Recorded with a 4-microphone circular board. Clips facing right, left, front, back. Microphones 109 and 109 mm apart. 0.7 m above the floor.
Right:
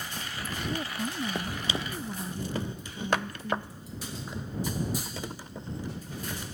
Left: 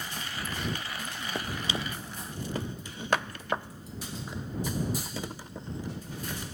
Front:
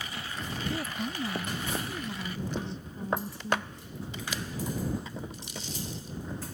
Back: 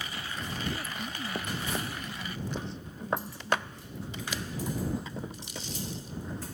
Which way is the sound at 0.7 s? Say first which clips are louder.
Right 4 dB, front 3 dB; 55° right.